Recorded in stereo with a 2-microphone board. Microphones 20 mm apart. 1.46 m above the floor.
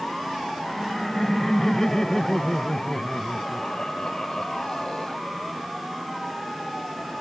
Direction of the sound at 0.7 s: 20° left (ahead or behind).